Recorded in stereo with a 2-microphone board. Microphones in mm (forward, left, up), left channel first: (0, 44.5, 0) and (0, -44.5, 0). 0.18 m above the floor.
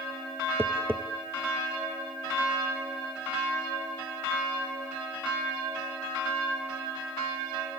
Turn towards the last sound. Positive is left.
turn(degrees=-25)  # may be behind; listen again after turning